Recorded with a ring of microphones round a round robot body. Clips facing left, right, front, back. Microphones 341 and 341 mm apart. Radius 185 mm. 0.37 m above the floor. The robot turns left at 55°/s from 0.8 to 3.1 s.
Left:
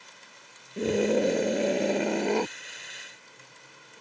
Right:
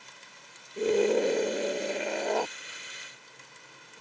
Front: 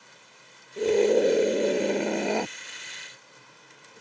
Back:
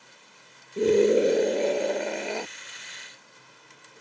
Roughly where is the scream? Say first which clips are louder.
Even, back 1 dB; behind left.